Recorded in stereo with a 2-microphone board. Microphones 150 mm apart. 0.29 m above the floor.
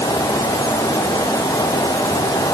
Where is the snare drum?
I don't hear a snare drum.